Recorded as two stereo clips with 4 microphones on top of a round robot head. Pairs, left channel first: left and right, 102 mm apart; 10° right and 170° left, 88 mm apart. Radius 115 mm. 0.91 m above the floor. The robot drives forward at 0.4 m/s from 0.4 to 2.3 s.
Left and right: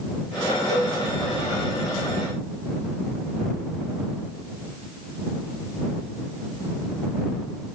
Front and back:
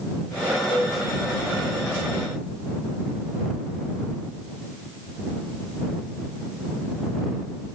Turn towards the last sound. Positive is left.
turn(degrees=150)